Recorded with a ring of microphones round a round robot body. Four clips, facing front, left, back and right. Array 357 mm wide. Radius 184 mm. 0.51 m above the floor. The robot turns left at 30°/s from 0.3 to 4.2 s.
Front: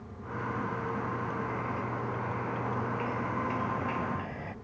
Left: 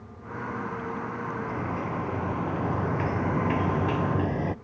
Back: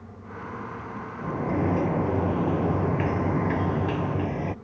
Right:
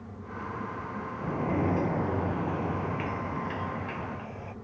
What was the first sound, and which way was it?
A sliding door, 145° right.